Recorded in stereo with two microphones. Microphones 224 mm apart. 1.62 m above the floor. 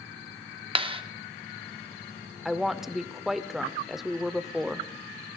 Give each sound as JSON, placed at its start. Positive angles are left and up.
{"t": 0.8, "sound": "a clap", "side_deg": -25, "distance_m": 0.7}
{"t": 2.5, "sound": "a woman speaking", "side_deg": 0, "distance_m": 0.6}